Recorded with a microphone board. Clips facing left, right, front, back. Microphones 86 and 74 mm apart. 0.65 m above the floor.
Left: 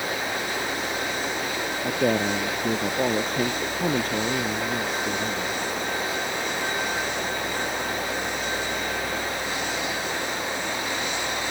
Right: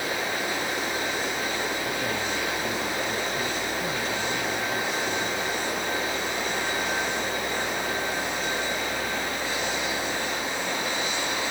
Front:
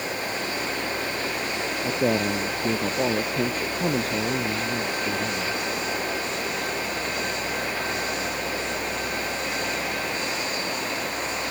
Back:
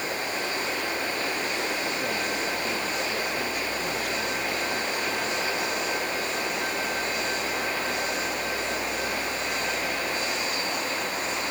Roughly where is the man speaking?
Ahead left.